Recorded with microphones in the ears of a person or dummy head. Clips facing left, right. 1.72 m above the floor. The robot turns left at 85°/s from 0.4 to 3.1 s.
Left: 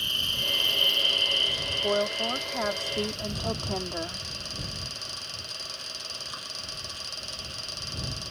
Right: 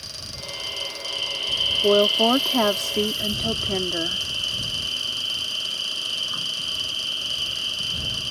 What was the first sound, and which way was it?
An insect, 95° left.